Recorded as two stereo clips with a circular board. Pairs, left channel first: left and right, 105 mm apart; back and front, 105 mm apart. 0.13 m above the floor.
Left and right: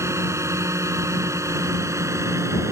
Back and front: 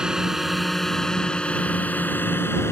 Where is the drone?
75° right; by 2.7 s 130° right.